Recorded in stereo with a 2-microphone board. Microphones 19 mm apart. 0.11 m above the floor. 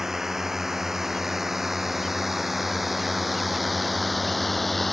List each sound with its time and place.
0.0 s a drone: 20° right (ahead or behind); by 4.9 s 5° left (ahead or behind)